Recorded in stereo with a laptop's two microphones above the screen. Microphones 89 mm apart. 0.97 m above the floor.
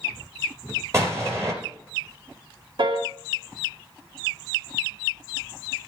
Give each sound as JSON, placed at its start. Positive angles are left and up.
{"t": 0.9, "sound": "an explosion", "side_deg": -30, "distance_m": 3.5}
{"t": 2.8, "sound": "a piano", "side_deg": -65, "distance_m": 1.2}